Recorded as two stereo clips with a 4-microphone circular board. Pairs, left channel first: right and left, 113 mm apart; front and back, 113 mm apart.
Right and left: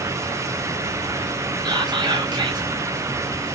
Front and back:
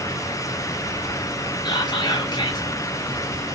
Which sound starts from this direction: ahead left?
Whispering, at 1.6 s.